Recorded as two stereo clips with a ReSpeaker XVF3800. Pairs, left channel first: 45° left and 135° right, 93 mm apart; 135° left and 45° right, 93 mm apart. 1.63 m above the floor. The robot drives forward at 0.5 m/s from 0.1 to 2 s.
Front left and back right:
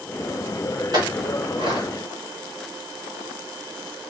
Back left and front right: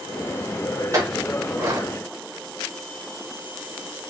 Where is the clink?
95° right, 2 m; by 1.9 s 110° right, 2 m.